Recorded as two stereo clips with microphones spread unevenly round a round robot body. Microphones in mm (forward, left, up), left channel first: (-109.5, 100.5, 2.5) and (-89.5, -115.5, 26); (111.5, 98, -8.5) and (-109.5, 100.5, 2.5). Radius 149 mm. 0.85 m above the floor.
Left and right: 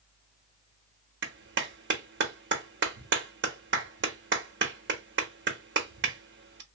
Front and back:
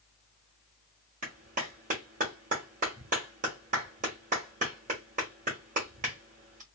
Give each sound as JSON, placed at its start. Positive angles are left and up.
{"t": 1.2, "sound": "a clap", "azimuth_deg": -115, "distance_m": 1.0}